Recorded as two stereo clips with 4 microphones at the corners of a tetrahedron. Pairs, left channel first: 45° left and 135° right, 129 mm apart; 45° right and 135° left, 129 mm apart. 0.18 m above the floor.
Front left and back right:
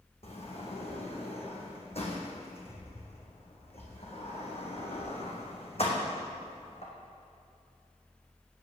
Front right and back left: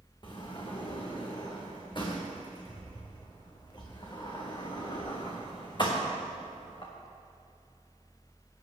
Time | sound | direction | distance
0.2 | a sliding door | 5° left | 2.5 m